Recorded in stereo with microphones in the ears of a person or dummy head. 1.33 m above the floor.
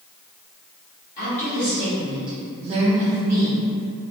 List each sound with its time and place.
1.2 s a woman speaking: 45° left (ahead or behind), 1.0 m; by 3.6 s 70° right (ahead or behind), 1.0 m